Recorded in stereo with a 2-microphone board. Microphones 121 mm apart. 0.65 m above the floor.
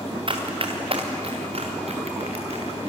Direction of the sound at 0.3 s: 45° right (ahead or behind).